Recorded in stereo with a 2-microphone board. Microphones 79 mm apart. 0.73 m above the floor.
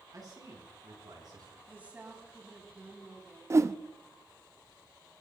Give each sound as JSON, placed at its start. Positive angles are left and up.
{"t": 0.1, "sound": "a man speaking", "side_deg": -50, "distance_m": 5.5}
{"t": 1.7, "sound": "a woman speaking", "side_deg": -20, "distance_m": 6.0}
{"t": 3.5, "sound": "a whoosh", "side_deg": -35, "distance_m": 0.6}